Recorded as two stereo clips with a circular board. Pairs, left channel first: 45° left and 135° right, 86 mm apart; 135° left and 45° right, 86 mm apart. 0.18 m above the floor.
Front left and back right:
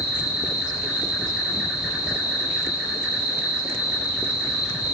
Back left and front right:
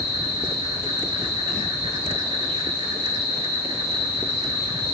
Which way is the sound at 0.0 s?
50° right.